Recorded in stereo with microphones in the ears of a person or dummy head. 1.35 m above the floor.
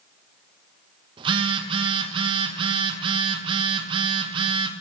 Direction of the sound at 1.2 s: 30° right (ahead or behind).